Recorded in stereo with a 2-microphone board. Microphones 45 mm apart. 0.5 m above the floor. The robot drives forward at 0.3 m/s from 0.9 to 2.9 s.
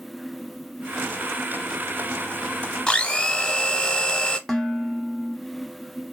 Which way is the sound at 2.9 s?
20° left (ahead or behind).